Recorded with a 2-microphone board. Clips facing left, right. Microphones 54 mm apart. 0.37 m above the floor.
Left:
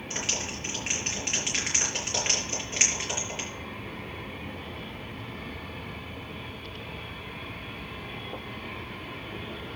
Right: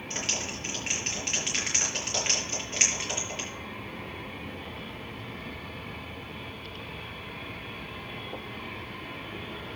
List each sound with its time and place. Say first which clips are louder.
0.1 s a clap: even; 5° left (ahead or behind), 6 m